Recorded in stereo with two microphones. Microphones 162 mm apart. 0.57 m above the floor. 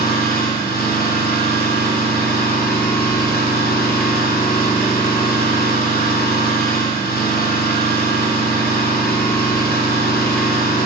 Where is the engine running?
75° left (ahead or behind), 3 m.